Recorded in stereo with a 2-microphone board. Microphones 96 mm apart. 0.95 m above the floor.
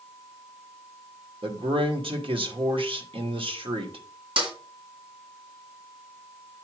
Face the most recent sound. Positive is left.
turn(degrees=-65)  # may be behind; listen again after turning